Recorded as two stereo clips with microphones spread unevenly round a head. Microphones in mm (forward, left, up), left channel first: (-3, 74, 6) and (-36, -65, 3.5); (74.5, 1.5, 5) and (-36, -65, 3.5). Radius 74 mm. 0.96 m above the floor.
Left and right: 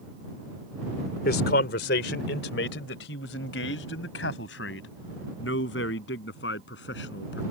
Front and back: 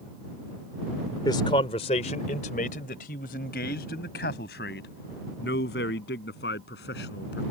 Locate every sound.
1.2 s a man speaking: 95° left; by 7.4 s 50° left